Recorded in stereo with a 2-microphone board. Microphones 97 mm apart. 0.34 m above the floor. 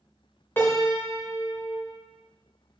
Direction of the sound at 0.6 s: 20° left (ahead or behind).